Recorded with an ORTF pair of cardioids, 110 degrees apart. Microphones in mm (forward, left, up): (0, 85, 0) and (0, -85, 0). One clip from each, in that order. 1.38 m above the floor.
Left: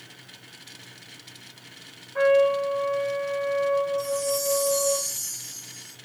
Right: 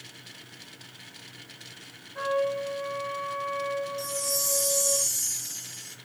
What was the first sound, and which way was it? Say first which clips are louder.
A trumpet: left 8 dB; 55° left.